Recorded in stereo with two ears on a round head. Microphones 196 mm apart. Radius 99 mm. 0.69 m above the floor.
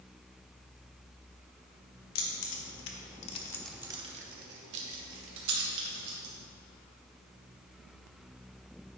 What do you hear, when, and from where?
2.1 s keys jangling: 65° left (ahead or behind), 1.8 m; by 6.3 s 70° right (ahead or behind), 3 m